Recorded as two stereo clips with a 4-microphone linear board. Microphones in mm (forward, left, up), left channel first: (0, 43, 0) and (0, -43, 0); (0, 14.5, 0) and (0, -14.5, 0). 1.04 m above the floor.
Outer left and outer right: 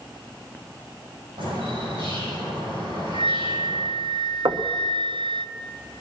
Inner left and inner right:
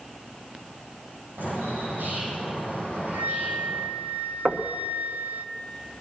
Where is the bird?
85° right, 9 m.